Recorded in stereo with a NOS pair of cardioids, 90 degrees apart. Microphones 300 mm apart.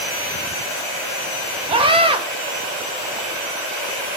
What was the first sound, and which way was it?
A scream, 20° right.